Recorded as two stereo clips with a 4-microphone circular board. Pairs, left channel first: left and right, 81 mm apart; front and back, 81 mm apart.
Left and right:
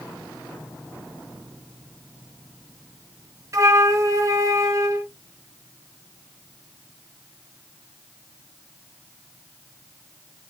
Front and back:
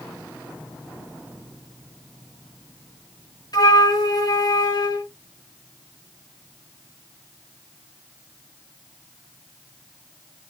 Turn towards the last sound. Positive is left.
turn(degrees=-35)